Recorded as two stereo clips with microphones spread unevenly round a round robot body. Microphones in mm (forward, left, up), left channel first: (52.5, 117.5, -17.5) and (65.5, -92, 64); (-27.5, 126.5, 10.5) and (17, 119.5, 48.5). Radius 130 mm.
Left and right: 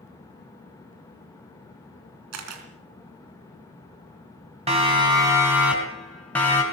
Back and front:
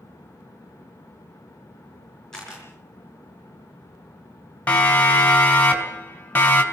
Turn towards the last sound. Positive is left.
turn(degrees=165)